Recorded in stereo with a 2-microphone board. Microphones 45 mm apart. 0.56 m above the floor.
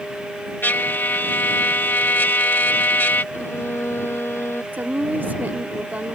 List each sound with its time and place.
0.6 s a trumpet: 50° left (ahead or behind)
3.3 s a violin: 55° left (ahead or behind)
4.7 s a woman speaking: 45° right (ahead or behind)